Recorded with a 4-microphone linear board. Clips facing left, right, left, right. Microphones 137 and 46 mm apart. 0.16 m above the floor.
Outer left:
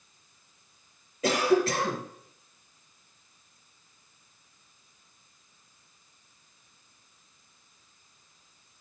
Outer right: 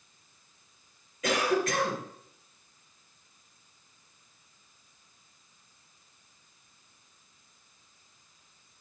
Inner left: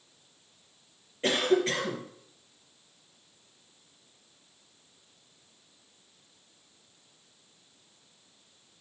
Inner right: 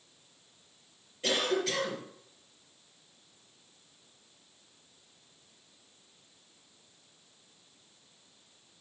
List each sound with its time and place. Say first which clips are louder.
1.2 s a cough: outer left 4 dB, inner left 4 dB; 35° left (ahead or behind), 3 m